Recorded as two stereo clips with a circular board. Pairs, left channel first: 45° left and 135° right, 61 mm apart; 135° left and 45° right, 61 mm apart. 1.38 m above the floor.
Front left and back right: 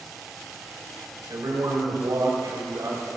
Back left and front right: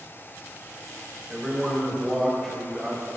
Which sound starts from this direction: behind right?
A man speaking, at 1.3 s.